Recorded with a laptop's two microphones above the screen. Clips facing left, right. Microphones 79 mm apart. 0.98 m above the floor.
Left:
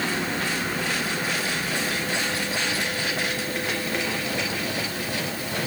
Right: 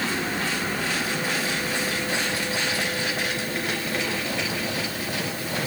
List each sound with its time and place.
Only background noise.